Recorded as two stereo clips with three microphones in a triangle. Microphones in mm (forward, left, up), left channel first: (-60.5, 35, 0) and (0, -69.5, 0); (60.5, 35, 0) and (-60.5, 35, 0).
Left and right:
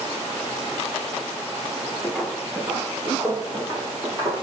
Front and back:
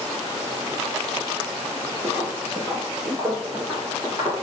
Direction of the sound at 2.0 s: 170° right.